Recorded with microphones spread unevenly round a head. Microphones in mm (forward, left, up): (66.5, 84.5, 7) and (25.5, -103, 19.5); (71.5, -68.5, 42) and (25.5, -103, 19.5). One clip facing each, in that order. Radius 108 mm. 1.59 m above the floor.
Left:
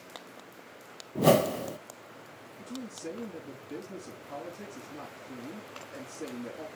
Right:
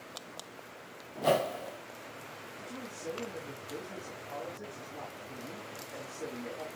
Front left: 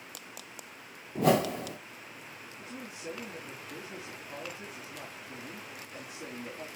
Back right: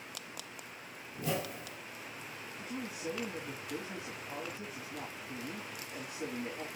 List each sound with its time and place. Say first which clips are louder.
1.1 s a whoosh: left 6 dB, front left 11 dB; 40° left, 0.6 m
2.6 s a man speaking: left 4 dB, back right 3 dB; 140° left, 3 m